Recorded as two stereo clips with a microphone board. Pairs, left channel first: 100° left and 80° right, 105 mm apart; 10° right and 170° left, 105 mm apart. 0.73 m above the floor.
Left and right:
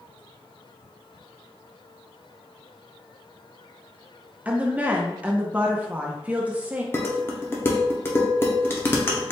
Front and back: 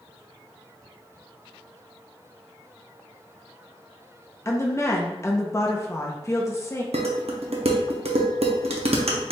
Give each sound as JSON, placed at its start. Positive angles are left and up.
{"t": 4.5, "sound": "a woman speaking", "azimuth_deg": -25, "distance_m": 0.7}
{"t": 6.9, "sound": "dishes clattering", "azimuth_deg": 165, "distance_m": 0.6}